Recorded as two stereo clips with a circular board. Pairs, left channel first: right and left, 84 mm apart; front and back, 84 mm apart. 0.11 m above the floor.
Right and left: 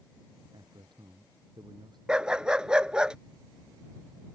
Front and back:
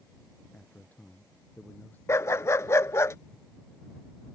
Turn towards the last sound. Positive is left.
turn(degrees=20)